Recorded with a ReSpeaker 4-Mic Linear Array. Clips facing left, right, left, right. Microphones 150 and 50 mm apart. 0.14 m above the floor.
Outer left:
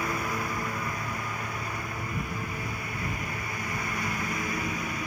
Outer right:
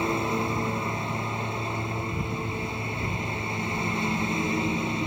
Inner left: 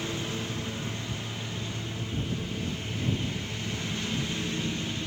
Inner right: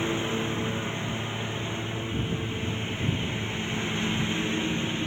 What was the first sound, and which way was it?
A lawn mower, 25° right (ahead or behind).